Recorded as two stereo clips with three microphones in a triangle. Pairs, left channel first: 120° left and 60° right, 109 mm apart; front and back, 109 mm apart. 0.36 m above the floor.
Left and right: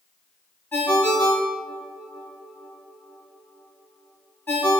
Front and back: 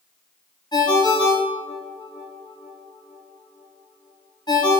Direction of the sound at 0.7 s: 55° left.